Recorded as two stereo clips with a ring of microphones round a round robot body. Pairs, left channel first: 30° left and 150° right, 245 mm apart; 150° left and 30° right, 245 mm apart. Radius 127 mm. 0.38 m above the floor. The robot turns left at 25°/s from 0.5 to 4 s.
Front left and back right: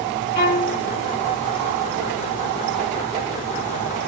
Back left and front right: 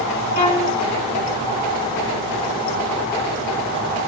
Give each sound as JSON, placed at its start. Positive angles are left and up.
{"t": 0.3, "sound": "a violin", "azimuth_deg": 90, "distance_m": 3.5}